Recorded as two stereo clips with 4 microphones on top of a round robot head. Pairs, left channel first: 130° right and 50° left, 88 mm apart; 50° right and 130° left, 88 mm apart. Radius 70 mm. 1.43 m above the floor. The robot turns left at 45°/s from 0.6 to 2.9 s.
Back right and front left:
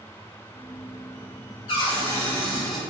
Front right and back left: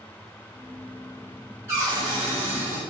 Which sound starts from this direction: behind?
A cupboard door, at 1.7 s.